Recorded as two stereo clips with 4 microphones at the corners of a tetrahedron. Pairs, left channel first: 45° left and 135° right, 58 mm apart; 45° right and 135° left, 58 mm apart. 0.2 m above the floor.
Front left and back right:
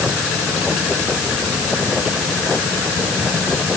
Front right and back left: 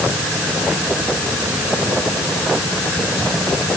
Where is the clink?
No clink in this recording.